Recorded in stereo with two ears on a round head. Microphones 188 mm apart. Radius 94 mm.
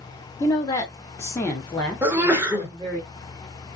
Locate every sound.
0.4 s a woman speaking: 15° left (ahead or behind), 0.8 m; by 3.0 s centre (ahead or behind), 1.3 m
2.0 s a sneeze: 10° right (ahead or behind), 1.1 m